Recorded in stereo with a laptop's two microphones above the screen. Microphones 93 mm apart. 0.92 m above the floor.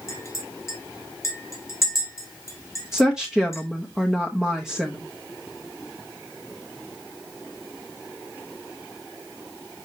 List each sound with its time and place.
0.1 s a clink: 35° left (ahead or behind), 2.5 m
2.9 s a woman speaking: 5° right (ahead or behind), 0.7 m